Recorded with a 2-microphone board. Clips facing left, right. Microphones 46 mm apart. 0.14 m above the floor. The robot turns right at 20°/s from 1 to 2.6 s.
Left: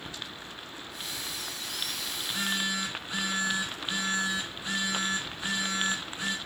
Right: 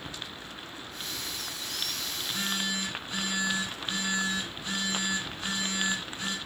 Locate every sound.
2.2 s a phone buzzing: 5° left (ahead or behind), 2.0 m; by 6.4 s 10° left (ahead or behind), 2.0 m